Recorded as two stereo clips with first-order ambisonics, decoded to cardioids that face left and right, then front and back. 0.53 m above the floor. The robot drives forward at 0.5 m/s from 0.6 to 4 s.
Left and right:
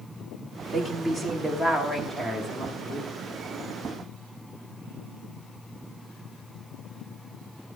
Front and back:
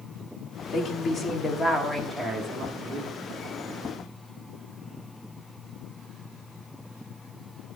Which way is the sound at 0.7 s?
5° left.